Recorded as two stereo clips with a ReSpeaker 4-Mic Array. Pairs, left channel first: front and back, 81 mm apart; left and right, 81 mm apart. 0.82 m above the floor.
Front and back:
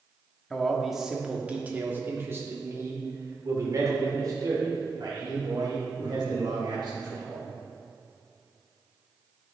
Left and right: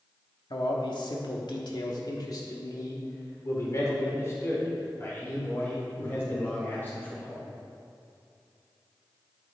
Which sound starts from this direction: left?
A man speaking, at 0.5 s.